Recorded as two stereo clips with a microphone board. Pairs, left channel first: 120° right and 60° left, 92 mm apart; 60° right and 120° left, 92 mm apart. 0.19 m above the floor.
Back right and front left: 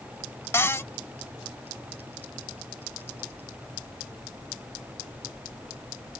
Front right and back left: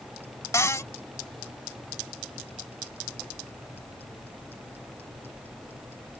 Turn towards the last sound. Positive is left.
turn(degrees=-80)